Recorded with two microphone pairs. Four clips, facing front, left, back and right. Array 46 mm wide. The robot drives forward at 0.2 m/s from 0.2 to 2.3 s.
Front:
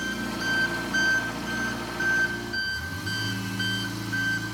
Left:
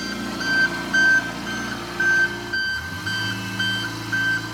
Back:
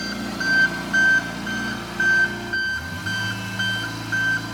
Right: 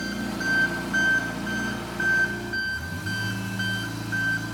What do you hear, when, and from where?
0.0 s an engine running: 155° left, 1.7 m; by 4.5 s 160° left, 2 m